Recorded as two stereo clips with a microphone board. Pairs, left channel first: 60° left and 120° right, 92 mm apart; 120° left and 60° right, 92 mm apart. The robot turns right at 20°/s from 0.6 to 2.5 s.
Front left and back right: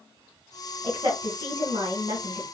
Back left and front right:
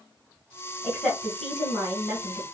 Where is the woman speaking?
165° right, 2 m; by 2.5 s 130° right, 2 m.